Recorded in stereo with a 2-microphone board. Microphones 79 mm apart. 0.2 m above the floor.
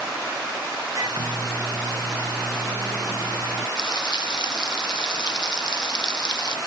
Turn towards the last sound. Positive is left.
turn(degrees=65)  # may be behind; listen again after turning